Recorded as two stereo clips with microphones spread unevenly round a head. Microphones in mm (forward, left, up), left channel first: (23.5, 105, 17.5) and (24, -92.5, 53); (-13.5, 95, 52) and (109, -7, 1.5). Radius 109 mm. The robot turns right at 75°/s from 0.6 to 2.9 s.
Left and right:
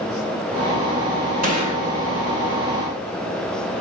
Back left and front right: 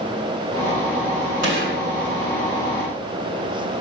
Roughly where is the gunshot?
Ahead right.